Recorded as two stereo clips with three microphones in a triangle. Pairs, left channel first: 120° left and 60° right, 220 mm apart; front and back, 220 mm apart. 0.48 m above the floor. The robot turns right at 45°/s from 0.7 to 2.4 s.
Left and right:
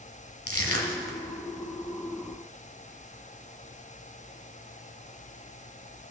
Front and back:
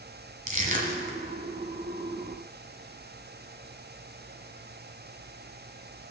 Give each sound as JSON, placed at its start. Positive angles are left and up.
{"t": 0.5, "sound": "crushing", "azimuth_deg": 130, "distance_m": 1.3}